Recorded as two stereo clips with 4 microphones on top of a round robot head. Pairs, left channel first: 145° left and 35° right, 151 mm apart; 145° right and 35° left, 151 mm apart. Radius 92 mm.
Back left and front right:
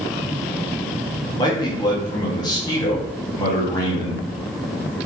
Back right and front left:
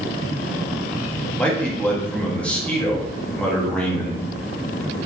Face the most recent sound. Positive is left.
turn(degrees=140)